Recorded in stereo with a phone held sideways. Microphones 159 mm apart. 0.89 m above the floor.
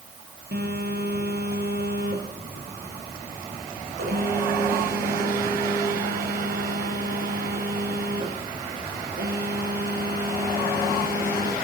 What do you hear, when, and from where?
0.5 s a phone buzzing: 85° right, 7 m